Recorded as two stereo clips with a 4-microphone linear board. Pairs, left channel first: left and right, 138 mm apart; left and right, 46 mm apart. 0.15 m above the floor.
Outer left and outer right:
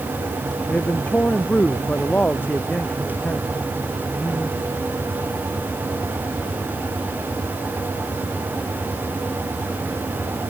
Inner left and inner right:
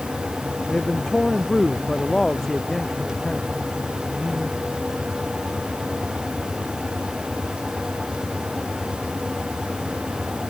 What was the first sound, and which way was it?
A man speaking, 10° left (ahead or behind).